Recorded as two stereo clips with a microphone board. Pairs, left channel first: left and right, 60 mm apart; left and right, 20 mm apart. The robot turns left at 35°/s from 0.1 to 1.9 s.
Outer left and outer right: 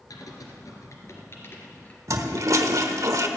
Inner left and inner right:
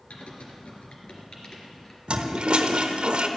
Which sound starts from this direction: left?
Typing on a keyboard, at 0.1 s.